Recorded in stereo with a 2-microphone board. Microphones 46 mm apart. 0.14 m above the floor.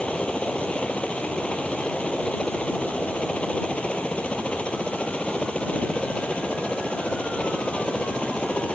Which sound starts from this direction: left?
A helicopter, at 0.0 s.